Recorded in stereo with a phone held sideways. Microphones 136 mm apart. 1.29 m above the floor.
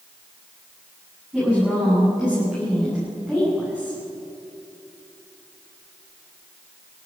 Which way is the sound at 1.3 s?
5° right (ahead or behind).